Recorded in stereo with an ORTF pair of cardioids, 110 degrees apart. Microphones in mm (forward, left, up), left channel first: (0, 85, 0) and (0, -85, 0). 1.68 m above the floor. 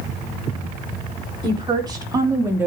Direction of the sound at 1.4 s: 30° right.